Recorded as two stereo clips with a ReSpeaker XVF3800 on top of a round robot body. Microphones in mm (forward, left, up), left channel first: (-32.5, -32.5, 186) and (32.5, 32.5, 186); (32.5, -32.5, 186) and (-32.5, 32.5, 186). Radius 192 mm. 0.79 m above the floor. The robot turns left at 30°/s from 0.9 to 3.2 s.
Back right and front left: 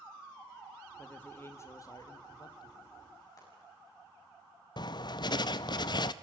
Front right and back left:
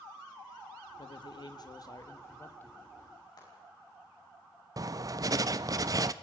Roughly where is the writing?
Behind.